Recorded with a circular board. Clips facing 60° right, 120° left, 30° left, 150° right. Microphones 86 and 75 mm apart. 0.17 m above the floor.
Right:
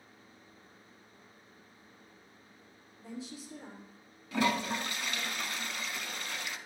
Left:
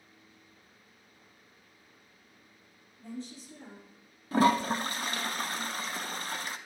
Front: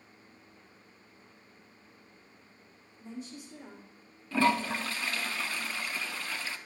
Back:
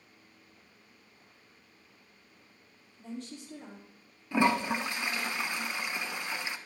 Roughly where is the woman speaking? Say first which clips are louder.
Left 2 dB, back 1 dB; behind right.